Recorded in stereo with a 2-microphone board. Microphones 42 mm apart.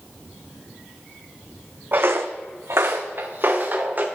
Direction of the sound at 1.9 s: 45° right (ahead or behind).